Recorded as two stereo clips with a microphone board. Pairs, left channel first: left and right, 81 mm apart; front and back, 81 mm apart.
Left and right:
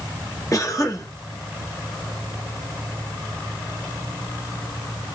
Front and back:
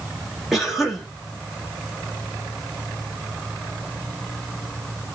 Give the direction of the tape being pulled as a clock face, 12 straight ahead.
I don't hear tape being pulled.